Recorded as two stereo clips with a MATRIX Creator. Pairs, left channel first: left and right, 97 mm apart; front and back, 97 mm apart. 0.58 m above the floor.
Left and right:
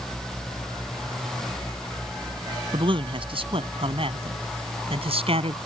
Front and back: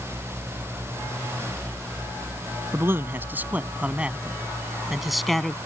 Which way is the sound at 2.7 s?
115° right.